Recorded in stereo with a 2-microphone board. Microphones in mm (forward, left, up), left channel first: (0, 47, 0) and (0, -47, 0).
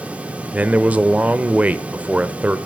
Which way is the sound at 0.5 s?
15° right (ahead or behind).